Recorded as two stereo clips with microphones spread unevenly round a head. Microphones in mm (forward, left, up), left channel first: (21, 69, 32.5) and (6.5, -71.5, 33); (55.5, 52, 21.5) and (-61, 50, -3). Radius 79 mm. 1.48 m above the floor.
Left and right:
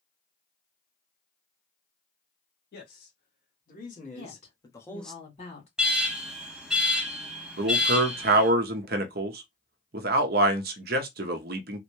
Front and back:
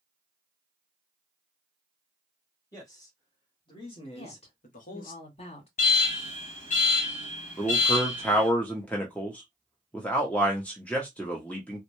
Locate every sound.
2.7 s a man speaking: 65° left, 2.0 m; by 5.2 s 5° right, 0.8 m
4.2 s a woman speaking: 35° left, 2.5 m
5.8 s an alarm: 10° right, 1.2 m
7.6 s a man speaking: 75° right, 0.7 m